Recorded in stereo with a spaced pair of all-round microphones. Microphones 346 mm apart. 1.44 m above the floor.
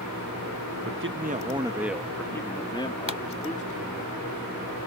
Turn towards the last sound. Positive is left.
turn(degrees=70)  # may be behind; listen again after turning